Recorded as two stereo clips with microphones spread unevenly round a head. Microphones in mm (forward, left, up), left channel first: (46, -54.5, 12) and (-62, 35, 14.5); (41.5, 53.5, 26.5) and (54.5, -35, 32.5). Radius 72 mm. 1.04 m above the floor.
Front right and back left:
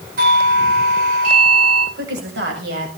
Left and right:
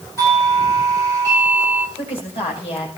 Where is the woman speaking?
135° left, 7.5 m.